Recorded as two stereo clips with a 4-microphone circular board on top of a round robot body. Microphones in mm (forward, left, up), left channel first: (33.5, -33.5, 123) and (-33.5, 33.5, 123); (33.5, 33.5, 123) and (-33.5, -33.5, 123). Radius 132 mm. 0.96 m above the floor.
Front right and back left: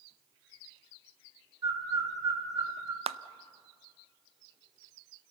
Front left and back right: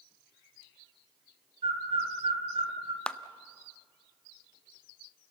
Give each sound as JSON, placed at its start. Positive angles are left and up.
{"t": 1.6, "sound": "a bird", "azimuth_deg": -170, "distance_m": 3.5}
{"t": 3.1, "sound": "a clap", "azimuth_deg": 125, "distance_m": 0.6}